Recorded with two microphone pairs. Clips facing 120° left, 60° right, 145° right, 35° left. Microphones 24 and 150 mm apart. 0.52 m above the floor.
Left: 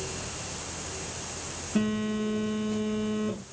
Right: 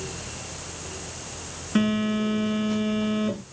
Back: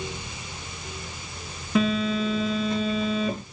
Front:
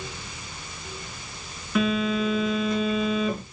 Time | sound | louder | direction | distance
1.8 | a phone buzzing | right 5 dB, even | 85° right | 6 m